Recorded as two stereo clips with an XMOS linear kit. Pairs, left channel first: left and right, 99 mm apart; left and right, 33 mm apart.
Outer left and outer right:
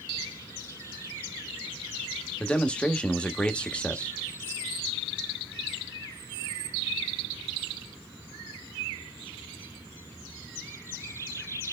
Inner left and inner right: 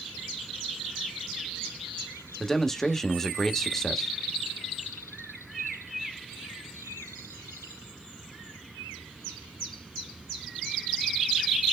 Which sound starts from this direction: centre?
A man speaking, at 2.4 s.